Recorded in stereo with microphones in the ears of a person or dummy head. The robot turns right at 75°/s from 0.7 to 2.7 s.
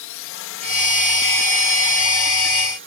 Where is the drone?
100° left; by 2.9 s 110° right.